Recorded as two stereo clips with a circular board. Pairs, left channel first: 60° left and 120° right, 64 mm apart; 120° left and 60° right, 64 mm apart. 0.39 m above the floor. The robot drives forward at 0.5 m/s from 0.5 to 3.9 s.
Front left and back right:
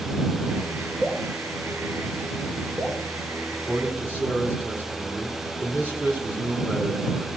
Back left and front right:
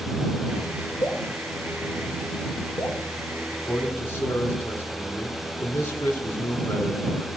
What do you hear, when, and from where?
1.0 s dripping: 170° left, 1.9 m; by 3.0 s 175° left, 3 m
3.5 s a man speaking: straight behind, 3 m